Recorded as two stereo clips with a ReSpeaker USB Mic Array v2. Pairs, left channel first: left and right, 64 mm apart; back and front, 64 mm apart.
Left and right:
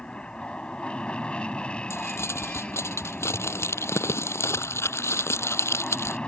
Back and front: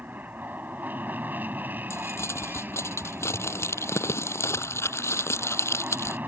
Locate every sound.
0.0 s an aircraft: 30° left
1.9 s crumpling: 135° left